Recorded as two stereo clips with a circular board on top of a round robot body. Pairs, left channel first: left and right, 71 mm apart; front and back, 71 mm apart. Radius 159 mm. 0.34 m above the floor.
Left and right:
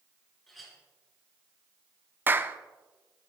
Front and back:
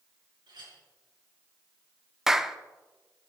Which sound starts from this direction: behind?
A clink, at 0.5 s.